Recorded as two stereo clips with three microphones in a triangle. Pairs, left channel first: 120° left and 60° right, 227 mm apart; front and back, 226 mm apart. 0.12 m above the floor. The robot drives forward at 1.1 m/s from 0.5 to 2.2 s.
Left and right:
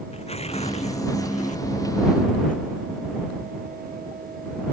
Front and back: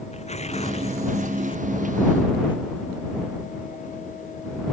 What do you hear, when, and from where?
0.1 s tearing paper: 60° left; by 2.6 s 70° left